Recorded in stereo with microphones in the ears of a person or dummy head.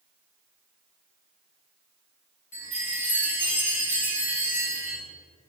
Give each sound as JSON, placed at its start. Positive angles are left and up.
{"t": 2.5, "sound": "a chime", "side_deg": 35, "distance_m": 2.0}